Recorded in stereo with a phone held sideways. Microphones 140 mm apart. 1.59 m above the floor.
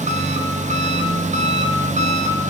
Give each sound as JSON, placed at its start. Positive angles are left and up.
{"t": 0.0, "sound": "an engine running", "side_deg": -55, "distance_m": 1.0}